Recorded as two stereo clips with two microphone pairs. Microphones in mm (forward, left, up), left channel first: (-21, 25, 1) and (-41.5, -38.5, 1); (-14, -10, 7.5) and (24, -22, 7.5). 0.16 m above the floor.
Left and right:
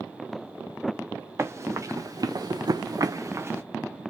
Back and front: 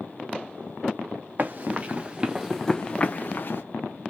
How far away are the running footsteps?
About 1.1 m.